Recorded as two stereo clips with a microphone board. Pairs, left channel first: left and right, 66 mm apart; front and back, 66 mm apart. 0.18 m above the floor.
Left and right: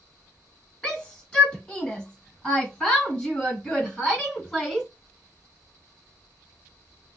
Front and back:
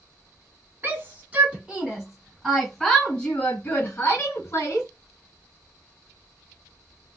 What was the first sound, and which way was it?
A shout, 155° left.